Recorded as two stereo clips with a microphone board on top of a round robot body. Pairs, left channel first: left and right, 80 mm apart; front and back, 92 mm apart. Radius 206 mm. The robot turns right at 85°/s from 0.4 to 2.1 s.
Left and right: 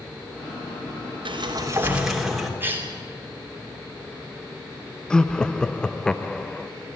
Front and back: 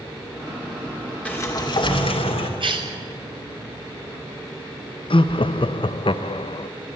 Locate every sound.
1.2 s a sliding door: 75° right, 2.5 m; by 2.5 s 5° right, 2.5 m
2.6 s a cough: 155° right, 3.5 m
5.1 s laughter: 10° left, 0.8 m